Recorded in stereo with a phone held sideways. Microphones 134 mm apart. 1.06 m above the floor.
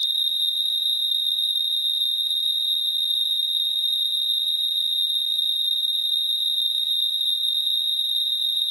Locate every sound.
0.0 s an insect: 50° right (ahead or behind)